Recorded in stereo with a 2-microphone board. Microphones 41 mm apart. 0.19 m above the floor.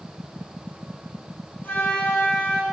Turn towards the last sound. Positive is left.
turn(degrees=40)  # may be behind; listen again after turning